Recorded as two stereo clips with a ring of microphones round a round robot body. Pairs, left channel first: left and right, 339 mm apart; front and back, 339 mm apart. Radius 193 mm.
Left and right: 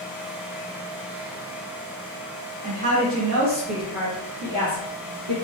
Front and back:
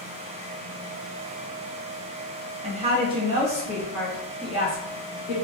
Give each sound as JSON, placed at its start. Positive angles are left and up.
{"t": 2.6, "sound": "a woman speaking", "azimuth_deg": -135, "distance_m": 0.8}